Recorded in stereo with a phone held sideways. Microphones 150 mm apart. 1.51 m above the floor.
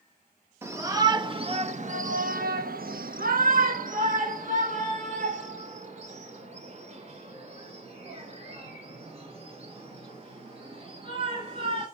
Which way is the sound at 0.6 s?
15° right (ahead or behind).